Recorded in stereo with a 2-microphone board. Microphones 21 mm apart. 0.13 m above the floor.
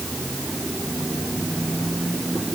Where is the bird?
No bird in this recording.